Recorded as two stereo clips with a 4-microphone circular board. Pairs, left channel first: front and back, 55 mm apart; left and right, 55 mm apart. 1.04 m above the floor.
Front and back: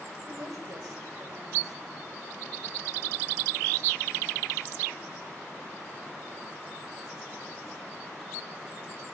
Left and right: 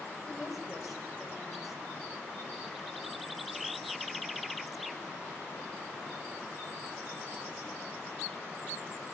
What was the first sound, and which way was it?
A woman speaking, 175° right.